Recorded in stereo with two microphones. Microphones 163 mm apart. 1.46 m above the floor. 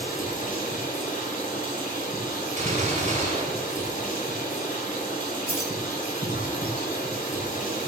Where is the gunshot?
55° right (ahead or behind), 3 m.